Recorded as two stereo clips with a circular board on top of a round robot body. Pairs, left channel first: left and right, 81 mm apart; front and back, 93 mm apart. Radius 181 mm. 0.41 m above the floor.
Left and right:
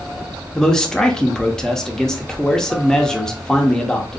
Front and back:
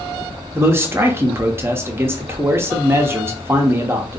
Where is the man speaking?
160° left, 0.8 m.